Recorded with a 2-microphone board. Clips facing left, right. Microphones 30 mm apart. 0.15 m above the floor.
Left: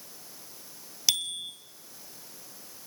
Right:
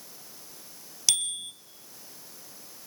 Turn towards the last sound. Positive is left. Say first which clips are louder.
# left 1 dB
turn(degrees=10)  # may be behind; listen again after turning